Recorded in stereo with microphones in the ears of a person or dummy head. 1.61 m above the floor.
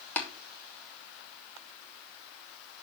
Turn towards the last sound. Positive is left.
turn(degrees=15)  # may be behind; listen again after turning